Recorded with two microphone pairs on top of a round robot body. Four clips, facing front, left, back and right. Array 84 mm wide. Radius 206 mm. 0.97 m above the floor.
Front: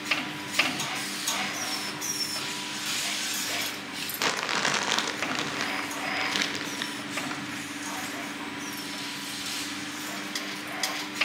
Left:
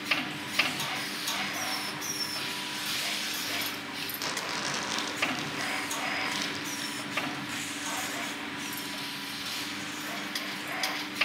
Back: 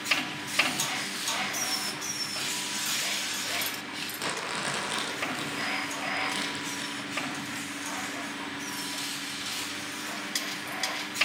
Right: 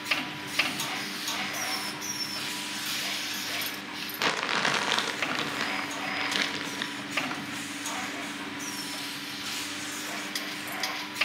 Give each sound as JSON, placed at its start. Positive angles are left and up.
{"t": 4.2, "sound": "crumpling", "azimuth_deg": -55, "distance_m": 2.0}